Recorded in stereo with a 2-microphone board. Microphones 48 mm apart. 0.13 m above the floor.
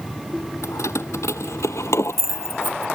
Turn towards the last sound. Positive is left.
turn(degrees=65)  # may be behind; listen again after turning